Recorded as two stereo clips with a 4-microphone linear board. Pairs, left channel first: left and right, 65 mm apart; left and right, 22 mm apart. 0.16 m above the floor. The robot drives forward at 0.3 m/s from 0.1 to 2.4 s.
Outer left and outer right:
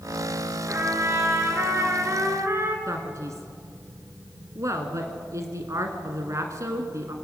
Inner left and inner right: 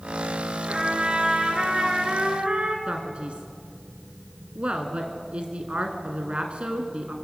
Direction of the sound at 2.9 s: 45° right (ahead or behind).